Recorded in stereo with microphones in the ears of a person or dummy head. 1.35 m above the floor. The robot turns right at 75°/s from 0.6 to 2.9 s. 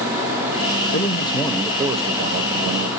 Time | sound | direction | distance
0.9 | a man speaking | 130° left | 0.5 m